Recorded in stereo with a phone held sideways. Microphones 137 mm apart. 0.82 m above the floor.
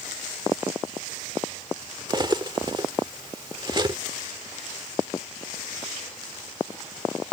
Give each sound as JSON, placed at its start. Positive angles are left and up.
{"t": 2.1, "sound": "cutlery clinking", "side_deg": -35}